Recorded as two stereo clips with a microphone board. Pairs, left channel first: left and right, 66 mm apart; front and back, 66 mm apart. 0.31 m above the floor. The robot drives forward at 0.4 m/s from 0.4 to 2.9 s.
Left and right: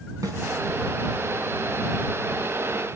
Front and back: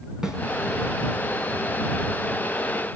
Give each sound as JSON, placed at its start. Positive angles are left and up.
{"t": 0.2, "sound": "a snare drum", "azimuth_deg": -100, "distance_m": 3.5}